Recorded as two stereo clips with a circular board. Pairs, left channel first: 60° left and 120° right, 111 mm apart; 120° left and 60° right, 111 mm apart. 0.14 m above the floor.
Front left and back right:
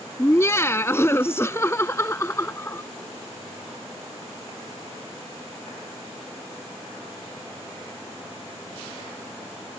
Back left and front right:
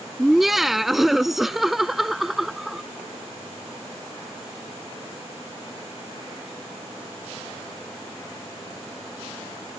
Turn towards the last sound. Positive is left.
turn(degrees=25)